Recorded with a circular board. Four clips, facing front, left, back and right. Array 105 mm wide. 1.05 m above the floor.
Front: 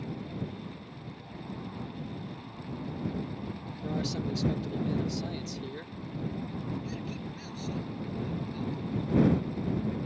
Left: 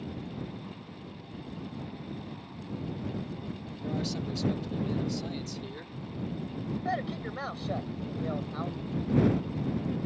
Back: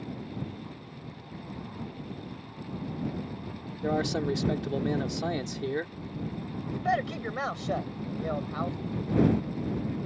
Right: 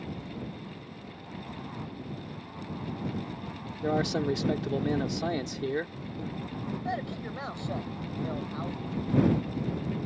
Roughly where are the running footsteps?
I don't hear running footsteps.